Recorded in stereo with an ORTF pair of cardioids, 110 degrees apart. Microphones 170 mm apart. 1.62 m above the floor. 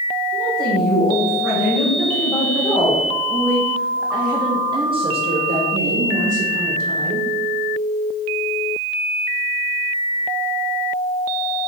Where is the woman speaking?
55° left, 2.5 m; by 7.3 s 70° right, 1.8 m.